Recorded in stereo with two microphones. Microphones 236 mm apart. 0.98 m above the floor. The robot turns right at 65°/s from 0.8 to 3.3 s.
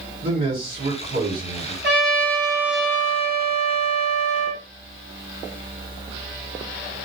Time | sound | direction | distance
0.2 | a man speaking | 140° right | 1.7 m
1.8 | a trumpet | 60° right | 1.0 m